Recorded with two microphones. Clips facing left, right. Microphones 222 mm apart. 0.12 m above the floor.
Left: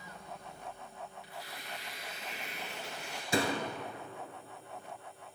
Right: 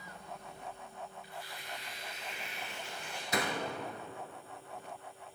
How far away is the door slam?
About 1.3 m.